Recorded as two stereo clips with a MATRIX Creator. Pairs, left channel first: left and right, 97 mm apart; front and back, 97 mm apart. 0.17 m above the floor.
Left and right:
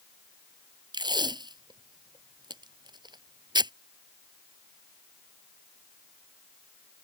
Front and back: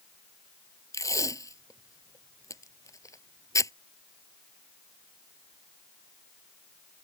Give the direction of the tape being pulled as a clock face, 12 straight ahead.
2 o'clock.